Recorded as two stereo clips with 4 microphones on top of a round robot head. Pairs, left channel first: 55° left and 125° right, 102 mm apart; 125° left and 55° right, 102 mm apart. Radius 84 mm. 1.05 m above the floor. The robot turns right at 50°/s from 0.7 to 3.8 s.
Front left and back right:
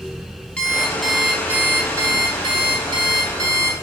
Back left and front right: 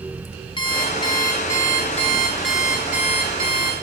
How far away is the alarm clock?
About 0.6 m.